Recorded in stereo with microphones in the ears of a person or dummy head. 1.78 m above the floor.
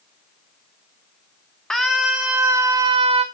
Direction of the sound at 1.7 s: 5° left (ahead or behind).